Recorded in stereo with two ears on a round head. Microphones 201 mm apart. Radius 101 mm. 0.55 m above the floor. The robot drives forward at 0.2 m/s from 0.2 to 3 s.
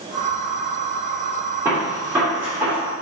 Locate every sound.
1.6 s a gunshot: 10° right (ahead or behind), 1.9 m